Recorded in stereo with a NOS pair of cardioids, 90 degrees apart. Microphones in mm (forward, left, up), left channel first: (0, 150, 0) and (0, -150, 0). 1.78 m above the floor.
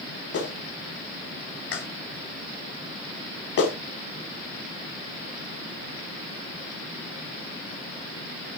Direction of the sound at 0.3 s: 55° left.